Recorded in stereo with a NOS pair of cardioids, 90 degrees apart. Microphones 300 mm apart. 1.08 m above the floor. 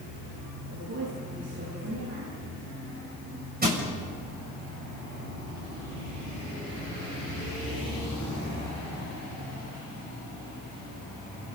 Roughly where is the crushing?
Ahead right.